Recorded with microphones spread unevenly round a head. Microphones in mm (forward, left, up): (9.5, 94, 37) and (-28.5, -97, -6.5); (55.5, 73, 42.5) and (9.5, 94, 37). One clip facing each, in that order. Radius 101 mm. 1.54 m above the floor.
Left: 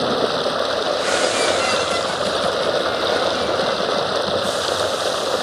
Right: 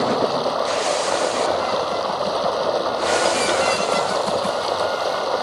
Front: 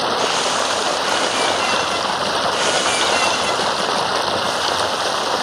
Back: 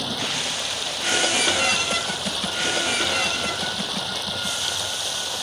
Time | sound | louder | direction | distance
0.0 | running water | even, front 9 dB | 5° left | ?